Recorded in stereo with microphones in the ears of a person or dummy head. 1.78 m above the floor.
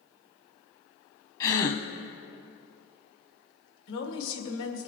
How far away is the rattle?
I don't hear a rattle.